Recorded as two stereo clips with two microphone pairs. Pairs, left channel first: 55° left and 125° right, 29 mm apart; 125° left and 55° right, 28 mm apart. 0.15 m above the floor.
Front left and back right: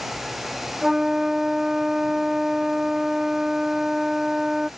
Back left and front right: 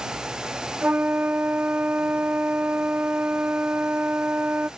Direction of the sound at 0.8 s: 55° right.